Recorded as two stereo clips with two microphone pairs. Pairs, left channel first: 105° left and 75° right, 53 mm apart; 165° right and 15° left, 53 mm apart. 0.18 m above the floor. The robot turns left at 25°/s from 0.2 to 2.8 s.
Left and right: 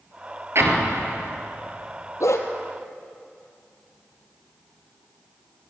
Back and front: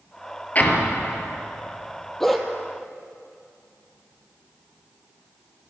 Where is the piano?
I don't hear a piano.